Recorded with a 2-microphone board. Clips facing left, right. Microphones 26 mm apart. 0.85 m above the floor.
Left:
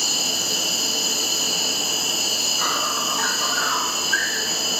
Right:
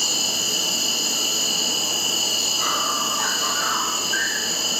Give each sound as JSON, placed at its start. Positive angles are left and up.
{"t": 0.0, "sound": "an insect", "side_deg": 35, "distance_m": 1.2}